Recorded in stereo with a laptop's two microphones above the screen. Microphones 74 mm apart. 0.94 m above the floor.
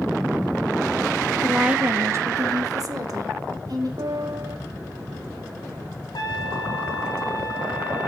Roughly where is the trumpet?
Left.